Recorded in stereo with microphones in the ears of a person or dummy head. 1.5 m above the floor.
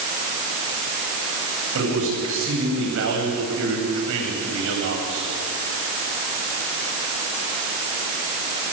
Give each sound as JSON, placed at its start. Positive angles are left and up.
{"t": 1.7, "sound": "a man speaking", "side_deg": -75, "distance_m": 10.0}